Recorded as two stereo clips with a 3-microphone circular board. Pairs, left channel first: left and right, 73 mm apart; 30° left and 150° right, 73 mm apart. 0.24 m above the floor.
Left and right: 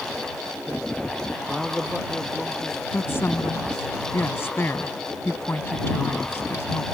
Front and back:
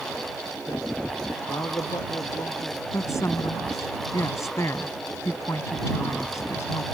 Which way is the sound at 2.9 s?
45° left.